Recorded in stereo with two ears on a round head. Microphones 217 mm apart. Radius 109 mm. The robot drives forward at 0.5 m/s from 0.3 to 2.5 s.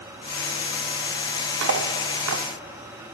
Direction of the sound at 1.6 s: 50° right (ahead or behind).